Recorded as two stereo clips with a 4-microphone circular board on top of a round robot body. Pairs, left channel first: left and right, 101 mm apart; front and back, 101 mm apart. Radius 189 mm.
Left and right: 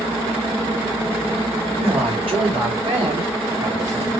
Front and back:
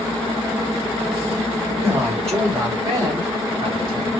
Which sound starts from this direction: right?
A man speaking, at 1.7 s.